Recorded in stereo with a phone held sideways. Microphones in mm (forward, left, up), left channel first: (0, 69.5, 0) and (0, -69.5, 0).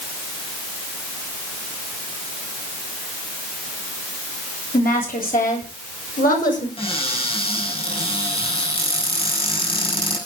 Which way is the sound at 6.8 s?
40° left (ahead or behind).